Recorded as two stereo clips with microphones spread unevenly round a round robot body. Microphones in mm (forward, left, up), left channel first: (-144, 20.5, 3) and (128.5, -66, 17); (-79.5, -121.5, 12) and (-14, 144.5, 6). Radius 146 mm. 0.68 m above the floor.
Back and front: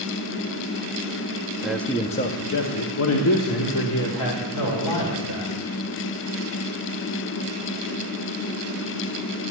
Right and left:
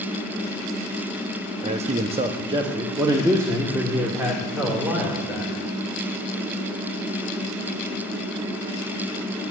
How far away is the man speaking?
About 0.5 m.